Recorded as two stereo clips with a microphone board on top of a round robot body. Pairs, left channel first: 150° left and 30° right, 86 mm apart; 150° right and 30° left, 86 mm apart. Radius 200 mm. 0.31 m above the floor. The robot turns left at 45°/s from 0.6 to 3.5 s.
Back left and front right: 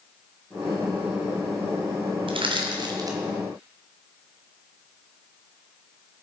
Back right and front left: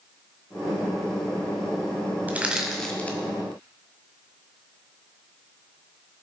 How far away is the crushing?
About 1.6 m.